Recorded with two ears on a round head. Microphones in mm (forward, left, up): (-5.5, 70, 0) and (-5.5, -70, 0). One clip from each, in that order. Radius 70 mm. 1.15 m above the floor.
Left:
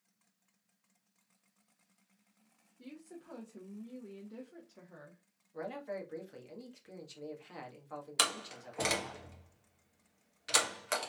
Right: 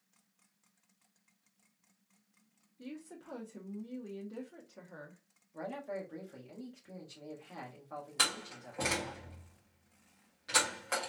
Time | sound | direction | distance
2.8 | a woman speaking | 15° right (ahead or behind) | 0.8 m
5.5 | a man speaking | 75° left (ahead or behind) | 1.5 m
8.2 | a door slam | 60° left (ahead or behind) | 1.3 m